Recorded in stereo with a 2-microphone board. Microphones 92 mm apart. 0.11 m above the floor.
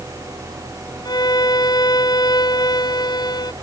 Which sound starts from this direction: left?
A violin, at 1.1 s.